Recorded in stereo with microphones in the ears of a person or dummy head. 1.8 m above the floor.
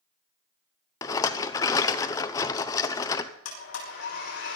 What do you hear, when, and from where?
1.0 s a rattle: 20° left (ahead or behind), 0.8 m
3.5 s a blender: 80° left, 5 m